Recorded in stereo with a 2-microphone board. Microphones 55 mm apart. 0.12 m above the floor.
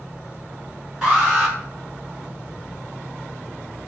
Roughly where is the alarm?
Centre.